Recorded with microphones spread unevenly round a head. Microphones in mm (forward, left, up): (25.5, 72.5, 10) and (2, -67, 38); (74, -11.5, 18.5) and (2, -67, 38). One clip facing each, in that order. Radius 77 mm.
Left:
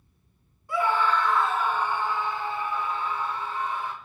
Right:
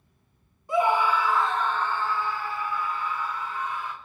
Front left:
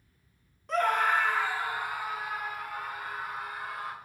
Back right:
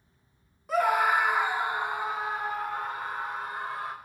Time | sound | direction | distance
0.7 | a scream | 85° right | 0.6 m